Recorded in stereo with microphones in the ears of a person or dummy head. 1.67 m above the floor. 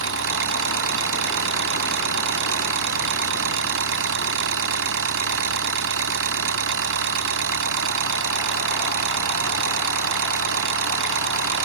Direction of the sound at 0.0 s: 70° right (ahead or behind).